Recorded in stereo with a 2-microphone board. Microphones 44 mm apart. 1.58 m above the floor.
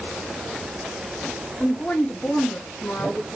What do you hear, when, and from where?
1.6 s a woman speaking: 15° left (ahead or behind), 0.7 m; by 3.4 s 70° left (ahead or behind), 1.5 m